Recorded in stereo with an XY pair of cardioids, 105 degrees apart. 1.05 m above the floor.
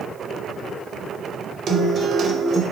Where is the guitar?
45° right, 0.6 m.